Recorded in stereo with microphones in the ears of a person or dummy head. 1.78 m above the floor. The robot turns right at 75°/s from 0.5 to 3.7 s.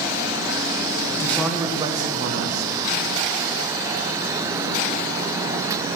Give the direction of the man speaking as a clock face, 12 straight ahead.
7 o'clock.